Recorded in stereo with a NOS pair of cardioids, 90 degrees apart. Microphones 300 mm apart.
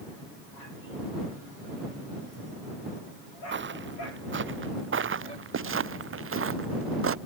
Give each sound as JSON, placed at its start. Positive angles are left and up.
{"t": 3.5, "sound": "footsteps", "azimuth_deg": -40}